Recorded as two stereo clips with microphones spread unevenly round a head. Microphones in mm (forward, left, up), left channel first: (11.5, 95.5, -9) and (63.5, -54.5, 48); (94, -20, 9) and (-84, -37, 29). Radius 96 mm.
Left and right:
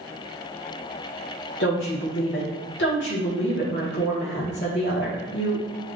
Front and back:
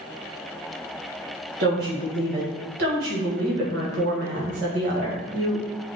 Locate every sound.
1.6 s a woman speaking: 150° left, 1.6 m